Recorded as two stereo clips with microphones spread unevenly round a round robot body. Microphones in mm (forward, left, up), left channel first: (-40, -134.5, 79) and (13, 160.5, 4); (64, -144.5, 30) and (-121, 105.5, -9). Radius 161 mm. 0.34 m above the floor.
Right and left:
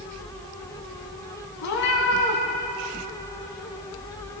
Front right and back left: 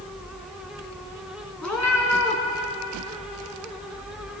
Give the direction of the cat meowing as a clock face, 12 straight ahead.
5 o'clock.